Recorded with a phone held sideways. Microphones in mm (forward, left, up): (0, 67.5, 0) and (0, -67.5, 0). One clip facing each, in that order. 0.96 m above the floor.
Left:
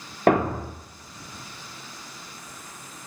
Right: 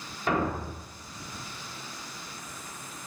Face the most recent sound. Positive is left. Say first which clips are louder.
# left 8 dB
turn(degrees=60)  # may be behind; listen again after turning